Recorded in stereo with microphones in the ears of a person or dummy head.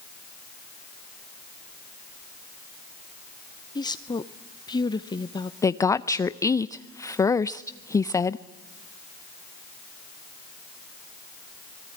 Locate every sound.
3.8 s a woman speaking: 20° left (ahead or behind), 0.6 m
5.6 s a woman speaking: 15° left (ahead or behind), 0.5 m